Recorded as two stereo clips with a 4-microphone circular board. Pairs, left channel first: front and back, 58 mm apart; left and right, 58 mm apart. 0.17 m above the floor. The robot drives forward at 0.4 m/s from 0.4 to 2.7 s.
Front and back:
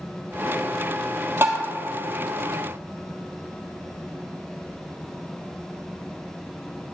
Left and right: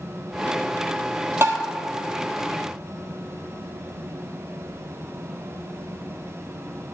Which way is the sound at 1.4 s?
130° right.